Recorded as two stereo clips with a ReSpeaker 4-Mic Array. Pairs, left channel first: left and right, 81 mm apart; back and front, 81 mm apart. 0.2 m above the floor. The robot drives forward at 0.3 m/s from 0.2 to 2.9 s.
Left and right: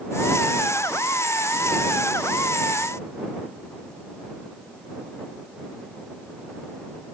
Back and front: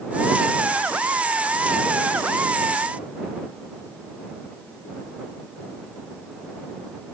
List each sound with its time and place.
Only background noise.